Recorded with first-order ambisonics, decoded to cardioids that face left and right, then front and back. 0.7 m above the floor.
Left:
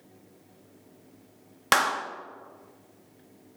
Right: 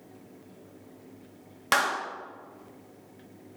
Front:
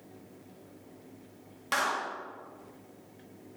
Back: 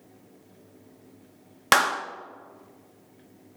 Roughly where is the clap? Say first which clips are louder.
Left 2 dB, back 9 dB; behind.